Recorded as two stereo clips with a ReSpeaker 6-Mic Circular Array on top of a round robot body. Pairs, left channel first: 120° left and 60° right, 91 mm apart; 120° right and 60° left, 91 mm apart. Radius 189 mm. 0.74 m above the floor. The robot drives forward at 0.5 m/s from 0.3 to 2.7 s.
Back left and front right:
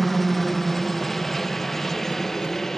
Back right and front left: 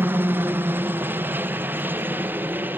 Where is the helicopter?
35° left; by 2.8 s 40° left.